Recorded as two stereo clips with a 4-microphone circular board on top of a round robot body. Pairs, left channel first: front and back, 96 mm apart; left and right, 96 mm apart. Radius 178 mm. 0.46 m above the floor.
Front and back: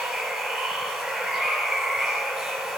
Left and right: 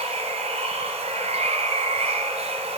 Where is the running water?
95° right, 1.4 m.